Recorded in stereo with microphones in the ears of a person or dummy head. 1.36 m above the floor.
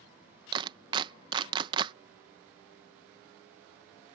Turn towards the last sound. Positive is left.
turn(degrees=-35)  # may be behind; listen again after turning